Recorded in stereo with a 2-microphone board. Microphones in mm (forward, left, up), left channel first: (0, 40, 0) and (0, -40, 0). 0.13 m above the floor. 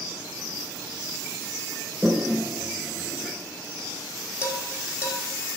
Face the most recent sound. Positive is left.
turn(degrees=30)  # may be behind; listen again after turning